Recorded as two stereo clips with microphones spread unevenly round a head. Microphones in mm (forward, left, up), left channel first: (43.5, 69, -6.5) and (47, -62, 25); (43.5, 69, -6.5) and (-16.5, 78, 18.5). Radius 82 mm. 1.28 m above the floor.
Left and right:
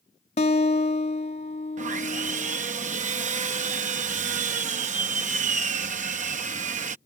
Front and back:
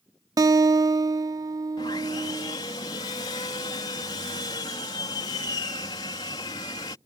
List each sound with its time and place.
0.4 s a guitar: 145° left
1.8 s sawing: 65° right